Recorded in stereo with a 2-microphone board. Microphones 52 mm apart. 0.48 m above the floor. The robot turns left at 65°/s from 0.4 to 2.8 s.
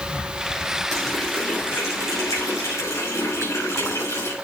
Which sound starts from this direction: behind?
A running tap, at 0.9 s.